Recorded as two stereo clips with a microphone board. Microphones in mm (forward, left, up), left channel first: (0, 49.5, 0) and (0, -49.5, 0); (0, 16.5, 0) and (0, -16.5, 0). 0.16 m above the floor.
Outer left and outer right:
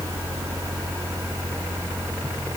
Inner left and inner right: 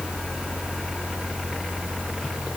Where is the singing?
I don't hear singing.